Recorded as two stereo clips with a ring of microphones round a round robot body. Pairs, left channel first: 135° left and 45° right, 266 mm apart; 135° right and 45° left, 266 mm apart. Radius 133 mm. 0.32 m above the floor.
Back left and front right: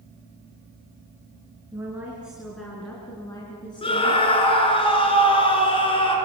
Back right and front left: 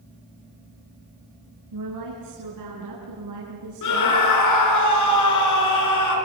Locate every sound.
1.7 s a woman speaking: 35° left, 5 m; by 4.2 s 70° left, 4.5 m
3.8 s a scream: 155° right, 4.5 m